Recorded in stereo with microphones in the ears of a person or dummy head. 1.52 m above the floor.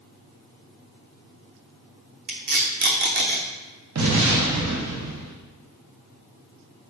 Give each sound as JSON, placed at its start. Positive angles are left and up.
{"t": 2.3, "sound": "tape being pulled", "side_deg": -55, "distance_m": 0.7}
{"t": 4.0, "sound": "an explosion", "side_deg": -85, "distance_m": 1.0}